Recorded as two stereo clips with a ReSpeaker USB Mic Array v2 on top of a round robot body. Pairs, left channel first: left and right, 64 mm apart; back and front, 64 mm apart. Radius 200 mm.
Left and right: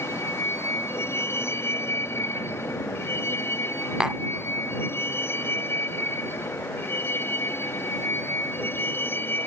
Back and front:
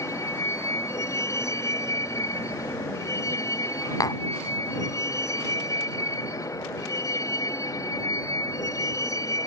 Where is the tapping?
170° right.